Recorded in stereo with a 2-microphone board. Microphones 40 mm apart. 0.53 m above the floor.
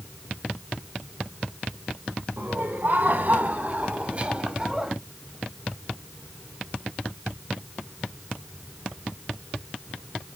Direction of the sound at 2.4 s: 60° right (ahead or behind).